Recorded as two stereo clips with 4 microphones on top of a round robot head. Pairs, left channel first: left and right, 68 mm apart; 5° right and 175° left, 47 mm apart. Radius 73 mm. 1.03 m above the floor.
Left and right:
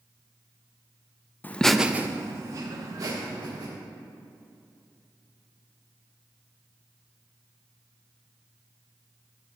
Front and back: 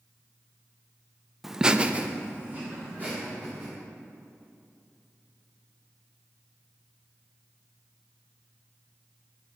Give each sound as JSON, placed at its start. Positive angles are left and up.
{"t": 1.4, "sound": "laughter", "azimuth_deg": 95, "distance_m": 0.5}